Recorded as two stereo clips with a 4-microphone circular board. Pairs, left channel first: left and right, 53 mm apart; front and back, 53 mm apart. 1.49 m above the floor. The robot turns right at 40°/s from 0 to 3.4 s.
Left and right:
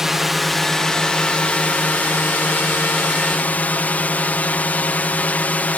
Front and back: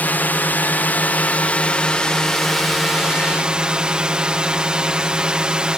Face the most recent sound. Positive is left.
turn(degrees=120)